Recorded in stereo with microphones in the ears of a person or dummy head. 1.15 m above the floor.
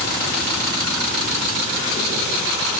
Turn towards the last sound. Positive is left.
No sound to turn to.